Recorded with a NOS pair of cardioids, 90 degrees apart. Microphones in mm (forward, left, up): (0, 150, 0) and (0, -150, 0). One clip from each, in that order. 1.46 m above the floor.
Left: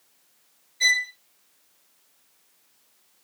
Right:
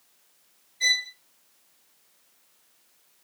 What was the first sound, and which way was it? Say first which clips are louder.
A violin: left 3 dB; 30° left.